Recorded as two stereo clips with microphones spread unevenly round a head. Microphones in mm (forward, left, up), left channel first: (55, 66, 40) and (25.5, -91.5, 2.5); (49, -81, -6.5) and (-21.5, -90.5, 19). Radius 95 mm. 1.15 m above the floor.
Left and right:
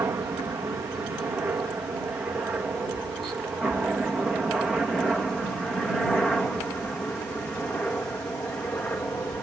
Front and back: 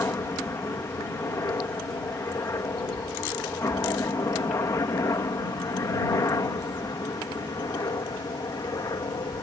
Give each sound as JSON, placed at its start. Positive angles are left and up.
{"t": 0.0, "sound": "a helicopter", "azimuth_deg": -30}